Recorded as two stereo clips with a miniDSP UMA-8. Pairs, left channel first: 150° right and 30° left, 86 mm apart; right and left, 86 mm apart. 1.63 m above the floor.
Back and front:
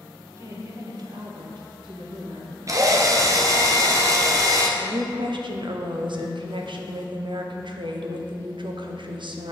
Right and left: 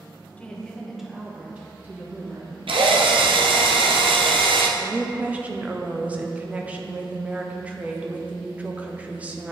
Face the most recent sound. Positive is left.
turn(degrees=15)